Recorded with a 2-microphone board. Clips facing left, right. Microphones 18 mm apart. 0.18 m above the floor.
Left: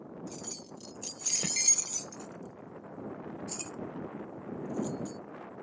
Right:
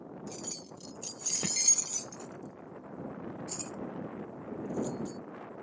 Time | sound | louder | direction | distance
0.3 | keys jangling | right 1 dB | 15° right (ahead or behind) | ?